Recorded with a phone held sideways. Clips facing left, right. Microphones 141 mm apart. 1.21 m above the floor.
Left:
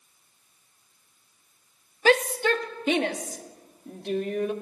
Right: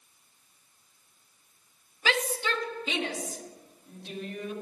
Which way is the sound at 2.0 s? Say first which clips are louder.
Left 8 dB; 45° left (ahead or behind).